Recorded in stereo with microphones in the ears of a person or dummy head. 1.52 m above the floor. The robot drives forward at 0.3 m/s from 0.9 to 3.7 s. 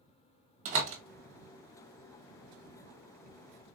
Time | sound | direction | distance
0.7 | a door slam | 35° right (ahead or behind) | 0.9 m